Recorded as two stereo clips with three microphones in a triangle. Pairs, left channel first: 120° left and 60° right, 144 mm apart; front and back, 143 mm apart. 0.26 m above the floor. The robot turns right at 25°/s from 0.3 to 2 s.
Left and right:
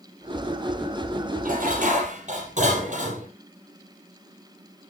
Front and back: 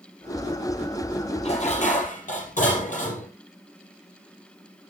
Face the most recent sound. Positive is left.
turn(degrees=-25)